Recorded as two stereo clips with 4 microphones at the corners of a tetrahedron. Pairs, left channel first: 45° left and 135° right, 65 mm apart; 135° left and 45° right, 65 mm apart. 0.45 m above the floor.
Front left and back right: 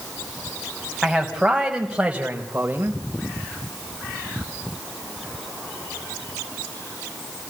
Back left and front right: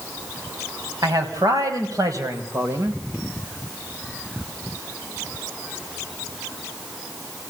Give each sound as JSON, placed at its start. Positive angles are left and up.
{"t": 1.0, "sound": "a man speaking", "azimuth_deg": -45, "distance_m": 3.5}